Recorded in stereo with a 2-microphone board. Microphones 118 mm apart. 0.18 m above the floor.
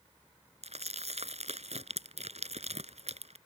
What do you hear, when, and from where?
0.6 s crumpling: 60° right (ahead or behind)